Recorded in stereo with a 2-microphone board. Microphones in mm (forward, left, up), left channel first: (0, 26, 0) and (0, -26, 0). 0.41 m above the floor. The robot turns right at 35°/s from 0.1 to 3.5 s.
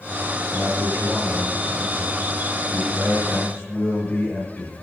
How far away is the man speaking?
About 6.5 m.